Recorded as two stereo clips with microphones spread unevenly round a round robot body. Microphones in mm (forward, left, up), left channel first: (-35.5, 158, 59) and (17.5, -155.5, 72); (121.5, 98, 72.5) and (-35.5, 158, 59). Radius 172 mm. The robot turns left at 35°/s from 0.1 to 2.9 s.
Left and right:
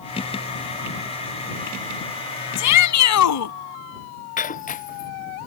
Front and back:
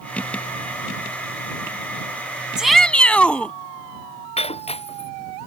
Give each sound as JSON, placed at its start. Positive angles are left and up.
{"t": 2.6, "sound": "a shout", "azimuth_deg": 75}
{"t": 4.4, "sound": "breaking glass", "azimuth_deg": 35}